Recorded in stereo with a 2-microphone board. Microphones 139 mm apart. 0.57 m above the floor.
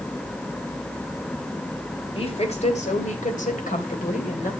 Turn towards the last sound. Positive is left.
turn(degrees=70)  # may be behind; listen again after turning